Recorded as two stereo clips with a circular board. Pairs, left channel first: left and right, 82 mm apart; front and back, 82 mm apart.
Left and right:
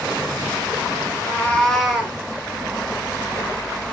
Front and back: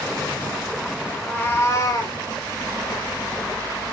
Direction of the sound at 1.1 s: 75° left.